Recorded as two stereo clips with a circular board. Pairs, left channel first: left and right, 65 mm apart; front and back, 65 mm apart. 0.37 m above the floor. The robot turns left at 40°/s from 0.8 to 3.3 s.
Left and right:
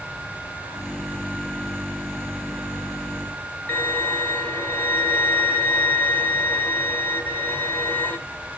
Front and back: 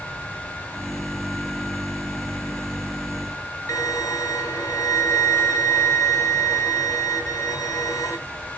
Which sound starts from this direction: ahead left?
A violin, at 3.7 s.